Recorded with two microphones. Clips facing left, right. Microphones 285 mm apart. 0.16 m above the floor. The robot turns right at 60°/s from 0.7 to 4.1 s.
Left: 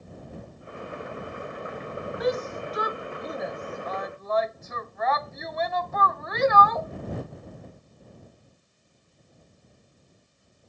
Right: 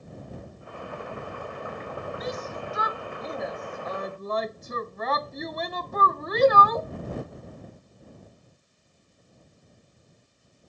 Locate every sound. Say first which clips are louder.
2.2 s a shout: left 11 dB; 70° left (ahead or behind); by 6.9 s 40° right (ahead or behind)